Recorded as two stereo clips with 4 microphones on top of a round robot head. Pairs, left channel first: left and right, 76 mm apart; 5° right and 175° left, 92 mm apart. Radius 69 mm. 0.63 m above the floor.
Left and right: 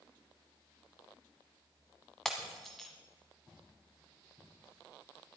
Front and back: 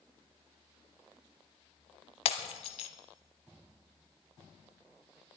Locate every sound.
2.2 s breaking glass: straight ahead, 1.0 m